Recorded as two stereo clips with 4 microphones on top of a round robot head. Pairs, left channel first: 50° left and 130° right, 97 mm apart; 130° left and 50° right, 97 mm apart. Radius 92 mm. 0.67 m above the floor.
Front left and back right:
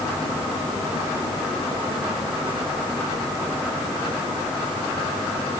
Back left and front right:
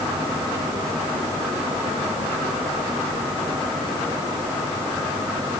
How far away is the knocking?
No knocking in this recording.